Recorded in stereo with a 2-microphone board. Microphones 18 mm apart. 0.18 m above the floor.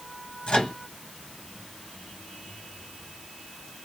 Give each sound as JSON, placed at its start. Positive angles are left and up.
{"t": 0.5, "sound": "a microwave", "side_deg": 60, "distance_m": 3.0}